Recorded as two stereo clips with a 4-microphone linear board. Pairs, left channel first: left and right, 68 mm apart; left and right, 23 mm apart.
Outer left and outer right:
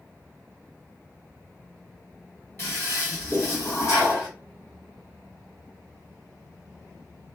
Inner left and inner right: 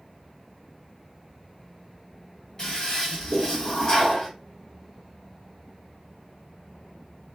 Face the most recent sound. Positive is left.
turn(degrees=35)  # may be behind; listen again after turning